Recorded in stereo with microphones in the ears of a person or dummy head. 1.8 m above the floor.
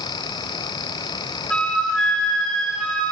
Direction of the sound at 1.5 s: 10° left (ahead or behind).